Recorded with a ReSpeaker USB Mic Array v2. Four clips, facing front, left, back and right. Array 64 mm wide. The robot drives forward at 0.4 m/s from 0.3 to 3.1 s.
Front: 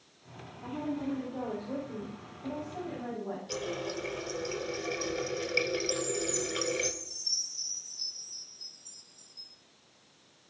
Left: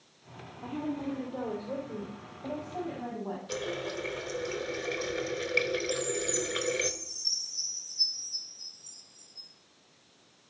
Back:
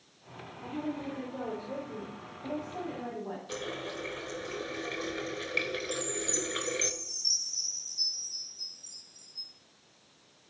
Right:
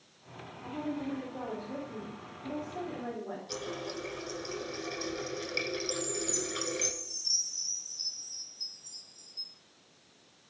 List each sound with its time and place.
0.6 s a woman speaking: 105° left, 3.5 m; by 3.4 s 120° left, 4 m
3.5 s a running tap: 130° left, 1.0 m
5.9 s a chime: 110° left, 4 m